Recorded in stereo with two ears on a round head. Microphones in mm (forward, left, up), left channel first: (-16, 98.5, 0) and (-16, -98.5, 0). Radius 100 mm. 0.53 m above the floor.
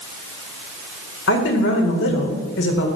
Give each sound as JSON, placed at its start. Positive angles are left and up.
{"t": 1.3, "sound": "a woman speaking", "side_deg": 55, "distance_m": 2.0}